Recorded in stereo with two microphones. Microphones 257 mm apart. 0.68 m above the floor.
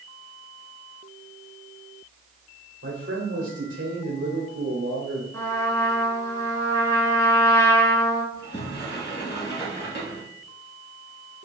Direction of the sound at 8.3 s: 40° left (ahead or behind).